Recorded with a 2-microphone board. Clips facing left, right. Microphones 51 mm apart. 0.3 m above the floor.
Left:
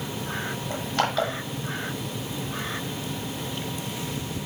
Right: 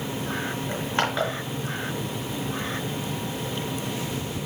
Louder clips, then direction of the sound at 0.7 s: Left 1 dB; 25° right (ahead or behind).